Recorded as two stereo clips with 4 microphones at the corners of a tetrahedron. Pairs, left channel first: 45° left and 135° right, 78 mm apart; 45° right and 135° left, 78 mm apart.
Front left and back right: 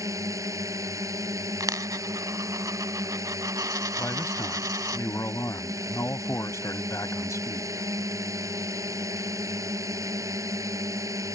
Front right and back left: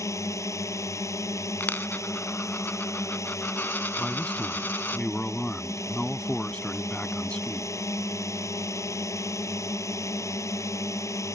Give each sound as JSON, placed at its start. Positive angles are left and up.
{"t": 0.0, "sound": "a drone", "azimuth_deg": -95}
{"t": 1.6, "sound": "a dropped coin", "azimuth_deg": -105}
{"t": 4.0, "sound": "a man speaking", "azimuth_deg": 20}